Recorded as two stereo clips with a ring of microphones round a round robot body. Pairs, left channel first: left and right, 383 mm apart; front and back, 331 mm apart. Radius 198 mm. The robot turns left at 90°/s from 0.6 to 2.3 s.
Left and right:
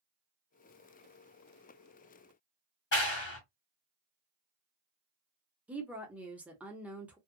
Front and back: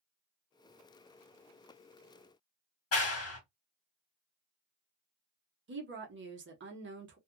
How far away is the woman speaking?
About 1.0 m.